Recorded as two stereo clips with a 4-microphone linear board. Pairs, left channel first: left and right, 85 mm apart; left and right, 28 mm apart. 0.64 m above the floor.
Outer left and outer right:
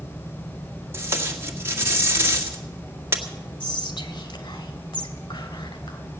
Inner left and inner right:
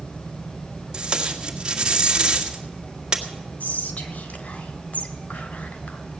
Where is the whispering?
70° left (ahead or behind), 2.5 m.